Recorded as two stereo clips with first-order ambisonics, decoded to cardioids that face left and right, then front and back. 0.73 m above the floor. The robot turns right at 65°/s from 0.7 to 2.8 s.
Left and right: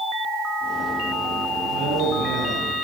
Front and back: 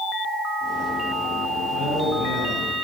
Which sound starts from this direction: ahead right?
A man speaking, at 1.7 s.